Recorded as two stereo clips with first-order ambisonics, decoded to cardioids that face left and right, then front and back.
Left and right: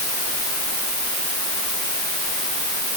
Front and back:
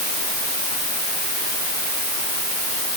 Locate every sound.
Only background noise.